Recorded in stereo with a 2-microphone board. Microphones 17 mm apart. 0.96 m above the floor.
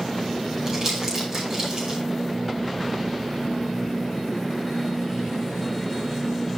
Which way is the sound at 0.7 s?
20° right (ahead or behind).